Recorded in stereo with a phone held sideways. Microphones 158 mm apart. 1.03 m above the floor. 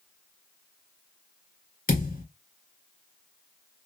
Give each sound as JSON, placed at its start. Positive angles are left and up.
{"t": 1.9, "sound": "a thud", "side_deg": 65, "distance_m": 2.0}